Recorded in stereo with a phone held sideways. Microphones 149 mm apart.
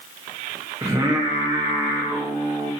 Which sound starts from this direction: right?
Singing, at 0.8 s.